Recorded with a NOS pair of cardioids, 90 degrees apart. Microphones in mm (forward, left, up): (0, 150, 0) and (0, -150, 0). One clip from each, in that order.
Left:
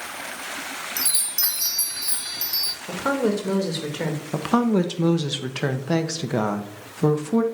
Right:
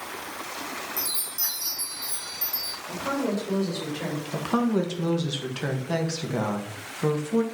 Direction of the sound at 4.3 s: 30° left.